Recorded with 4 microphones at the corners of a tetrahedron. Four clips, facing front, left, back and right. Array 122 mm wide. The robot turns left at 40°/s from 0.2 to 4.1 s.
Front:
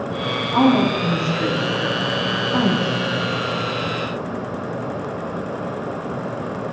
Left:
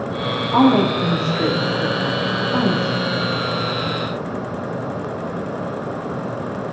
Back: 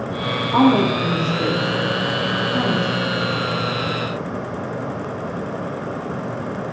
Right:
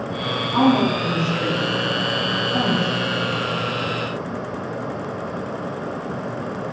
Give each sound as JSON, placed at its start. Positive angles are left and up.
{"t": 0.5, "sound": "a woman speaking", "azimuth_deg": 130, "distance_m": 1.3}